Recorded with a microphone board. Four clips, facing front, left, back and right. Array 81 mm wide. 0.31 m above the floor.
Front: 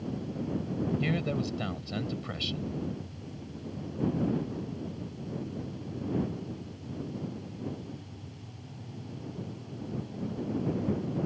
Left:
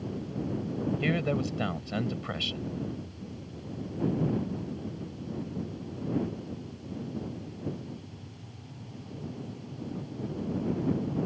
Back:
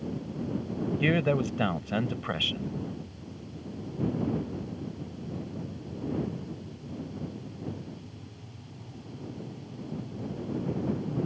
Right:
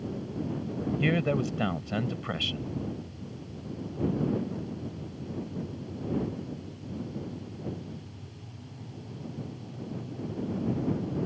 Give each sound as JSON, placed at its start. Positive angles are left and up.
{"t": 1.0, "sound": "a man speaking", "azimuth_deg": -170}